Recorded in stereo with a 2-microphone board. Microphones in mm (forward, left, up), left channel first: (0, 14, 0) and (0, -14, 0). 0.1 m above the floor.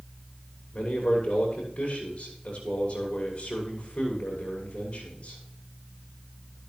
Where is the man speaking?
45° left (ahead or behind), 6.5 m.